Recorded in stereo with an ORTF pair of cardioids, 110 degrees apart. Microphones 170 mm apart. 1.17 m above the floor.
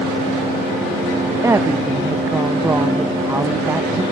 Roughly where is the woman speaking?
Ahead.